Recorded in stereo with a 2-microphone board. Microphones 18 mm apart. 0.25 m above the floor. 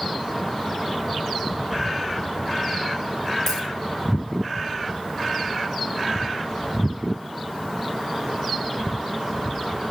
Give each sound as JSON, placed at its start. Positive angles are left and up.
{"t": 3.5, "sound": "a dropped coin", "side_deg": 20, "distance_m": 7.0}